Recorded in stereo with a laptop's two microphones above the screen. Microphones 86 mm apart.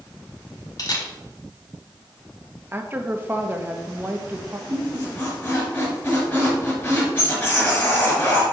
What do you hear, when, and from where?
0.8 s a camera shutter: 50° left (ahead or behind), 1.0 m
2.7 s a woman speaking: 25° right (ahead or behind), 0.8 m
4.7 s a squeak: 20° left (ahead or behind), 3 m